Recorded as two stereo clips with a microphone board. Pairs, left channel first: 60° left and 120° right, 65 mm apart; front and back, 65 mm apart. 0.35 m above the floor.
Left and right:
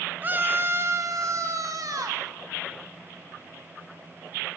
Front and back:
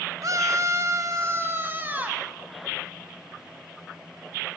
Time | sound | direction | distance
0.2 | a scream | 175° right | 1.5 m